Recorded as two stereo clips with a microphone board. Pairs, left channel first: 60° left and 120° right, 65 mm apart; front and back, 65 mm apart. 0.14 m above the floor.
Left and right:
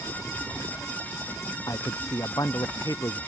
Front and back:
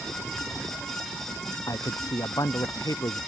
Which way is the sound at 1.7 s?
30° left.